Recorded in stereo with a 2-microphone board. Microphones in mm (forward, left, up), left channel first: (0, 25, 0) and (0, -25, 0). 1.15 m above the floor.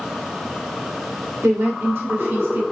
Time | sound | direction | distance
1.4 | a woman speaking | 70° right (ahead or behind) | 2.5 m